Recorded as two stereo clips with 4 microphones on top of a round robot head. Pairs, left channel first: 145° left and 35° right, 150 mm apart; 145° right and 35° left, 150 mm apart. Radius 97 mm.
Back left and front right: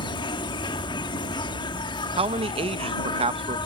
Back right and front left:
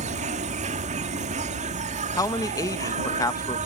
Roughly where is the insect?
Left.